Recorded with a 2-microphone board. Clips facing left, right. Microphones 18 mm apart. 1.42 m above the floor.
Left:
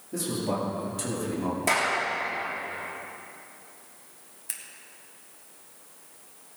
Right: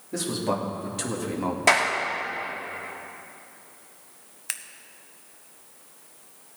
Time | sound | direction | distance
0.1 | a man speaking | 35° right (ahead or behind) | 2.5 m
1.7 | a clap | 40° right (ahead or behind) | 2.5 m
4.5 | scissors | 40° right (ahead or behind) | 0.7 m